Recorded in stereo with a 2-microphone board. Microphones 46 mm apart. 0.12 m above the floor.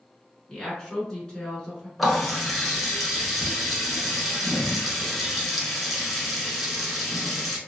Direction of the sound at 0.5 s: 15° left (ahead or behind).